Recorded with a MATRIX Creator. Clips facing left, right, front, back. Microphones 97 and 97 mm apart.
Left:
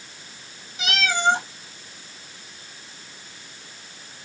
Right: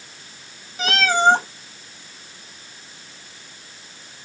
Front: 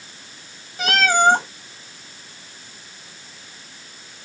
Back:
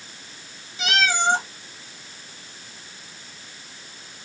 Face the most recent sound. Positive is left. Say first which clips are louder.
# right 5 dB, front 6 dB
turn(degrees=-40)